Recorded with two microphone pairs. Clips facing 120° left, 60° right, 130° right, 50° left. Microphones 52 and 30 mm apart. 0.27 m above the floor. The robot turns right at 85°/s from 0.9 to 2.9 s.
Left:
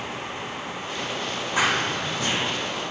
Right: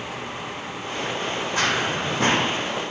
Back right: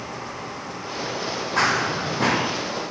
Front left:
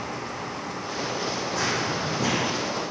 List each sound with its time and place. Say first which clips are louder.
1.6 s running footsteps: left 1 dB, back right 7 dB; 160° right, 0.8 m; by 2.5 s 80° right, 0.8 m